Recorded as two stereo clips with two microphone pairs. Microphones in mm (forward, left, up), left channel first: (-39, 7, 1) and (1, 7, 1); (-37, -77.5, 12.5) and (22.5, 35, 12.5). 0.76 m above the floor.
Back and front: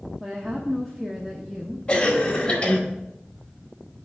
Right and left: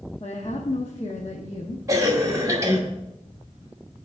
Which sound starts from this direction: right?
A woman speaking, at 0.2 s.